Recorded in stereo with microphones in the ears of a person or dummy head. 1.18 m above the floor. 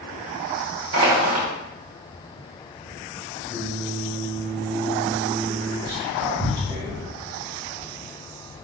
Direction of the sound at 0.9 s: 80° right.